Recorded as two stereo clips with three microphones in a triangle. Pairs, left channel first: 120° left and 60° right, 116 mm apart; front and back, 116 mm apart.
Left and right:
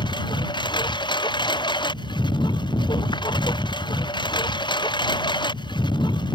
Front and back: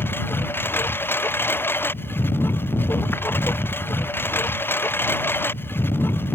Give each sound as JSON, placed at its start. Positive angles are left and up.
{"t": 0.0, "sound": "a lawn mower", "azimuth_deg": 70}